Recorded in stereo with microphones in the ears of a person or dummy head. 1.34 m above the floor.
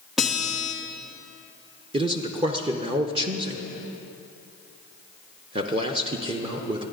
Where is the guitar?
5° right (ahead or behind), 1.3 m.